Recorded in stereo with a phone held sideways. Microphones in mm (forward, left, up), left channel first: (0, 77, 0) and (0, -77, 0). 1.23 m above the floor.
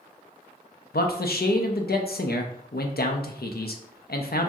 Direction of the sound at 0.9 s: 85° left.